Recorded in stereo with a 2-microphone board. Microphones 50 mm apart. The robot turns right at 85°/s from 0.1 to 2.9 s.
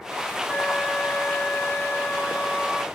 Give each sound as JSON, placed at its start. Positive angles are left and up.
{"t": 0.5, "sound": "a flute", "azimuth_deg": -15, "distance_m": 7.5}